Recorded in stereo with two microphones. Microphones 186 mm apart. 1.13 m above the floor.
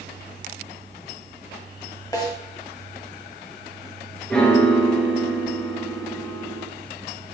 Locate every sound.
2.1 s a snare drum: 20° left (ahead or behind), 1.0 m
4.3 s a piano: 5° left (ahead or behind), 0.8 m